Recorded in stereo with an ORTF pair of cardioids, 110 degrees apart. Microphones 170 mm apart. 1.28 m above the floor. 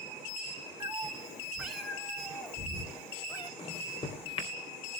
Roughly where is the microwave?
Ahead left.